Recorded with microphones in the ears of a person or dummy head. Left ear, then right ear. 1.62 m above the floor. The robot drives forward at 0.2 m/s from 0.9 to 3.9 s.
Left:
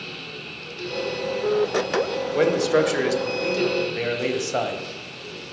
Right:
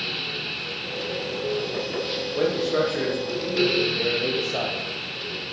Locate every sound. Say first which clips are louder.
2.3 s a man speaking: left 4 dB; 85° left, 1.0 m; by 4.8 s 80° left, 1.0 m